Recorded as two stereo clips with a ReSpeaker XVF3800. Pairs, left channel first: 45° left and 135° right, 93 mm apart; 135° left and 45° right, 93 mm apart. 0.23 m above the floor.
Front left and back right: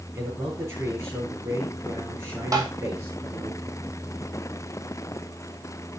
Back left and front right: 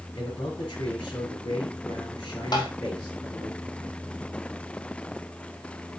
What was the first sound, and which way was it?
A man speaking, 170° left.